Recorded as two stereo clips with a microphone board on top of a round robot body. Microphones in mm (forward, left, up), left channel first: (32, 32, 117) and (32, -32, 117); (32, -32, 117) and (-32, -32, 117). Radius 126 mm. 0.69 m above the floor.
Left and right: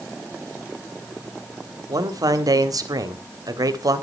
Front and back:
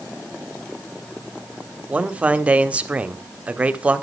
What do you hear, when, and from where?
1.9 s a man speaking: 110° right, 1.7 m